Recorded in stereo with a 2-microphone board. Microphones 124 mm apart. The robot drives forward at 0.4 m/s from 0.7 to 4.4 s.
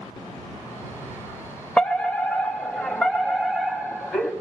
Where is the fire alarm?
10° left (ahead or behind), 0.9 m; by 4.3 s 5° left (ahead or behind), 1.7 m.